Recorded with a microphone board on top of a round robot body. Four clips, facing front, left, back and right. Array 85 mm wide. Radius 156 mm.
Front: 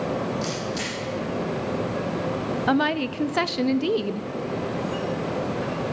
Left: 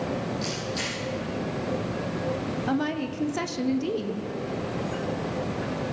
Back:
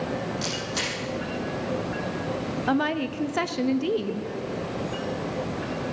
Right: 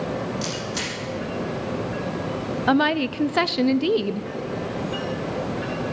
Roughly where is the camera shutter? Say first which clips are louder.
Right 2 dB, front 2 dB; behind right.